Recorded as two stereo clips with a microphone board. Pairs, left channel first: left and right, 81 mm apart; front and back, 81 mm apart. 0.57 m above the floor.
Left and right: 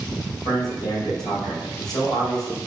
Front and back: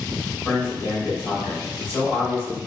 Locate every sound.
0.5 s a man speaking: 65° left, 2 m